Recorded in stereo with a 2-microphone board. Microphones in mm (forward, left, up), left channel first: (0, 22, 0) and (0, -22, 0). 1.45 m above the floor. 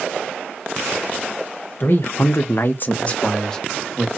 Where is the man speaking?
50° left (ahead or behind), 1.1 m; by 4.1 s 5° left (ahead or behind), 2 m.